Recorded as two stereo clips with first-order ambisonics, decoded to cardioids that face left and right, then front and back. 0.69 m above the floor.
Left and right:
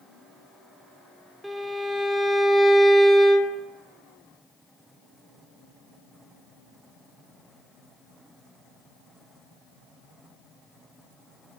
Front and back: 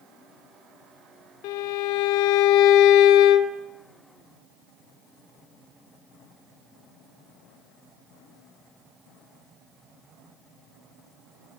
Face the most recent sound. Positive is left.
turn(degrees=-5)